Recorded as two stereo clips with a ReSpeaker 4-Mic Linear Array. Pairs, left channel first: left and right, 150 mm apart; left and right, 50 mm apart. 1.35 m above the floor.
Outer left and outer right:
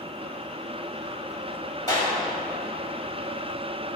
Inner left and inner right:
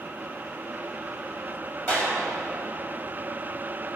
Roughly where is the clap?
Left.